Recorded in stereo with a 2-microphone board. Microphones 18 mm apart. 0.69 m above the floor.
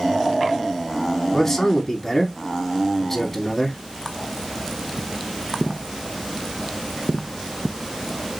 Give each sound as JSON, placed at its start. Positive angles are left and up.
{"t": 1.3, "sound": "a man speaking", "side_deg": 15, "distance_m": 1.3}